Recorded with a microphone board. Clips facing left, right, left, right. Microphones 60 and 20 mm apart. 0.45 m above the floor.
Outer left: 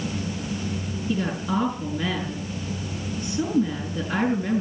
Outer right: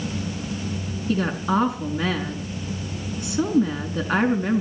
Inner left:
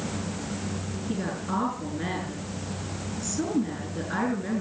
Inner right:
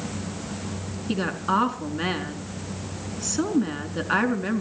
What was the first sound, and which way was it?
A woman speaking, 75° right (ahead or behind).